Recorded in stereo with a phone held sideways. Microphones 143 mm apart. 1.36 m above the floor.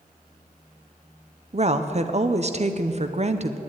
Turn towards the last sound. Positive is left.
turn(degrees=-45)  # may be behind; listen again after turning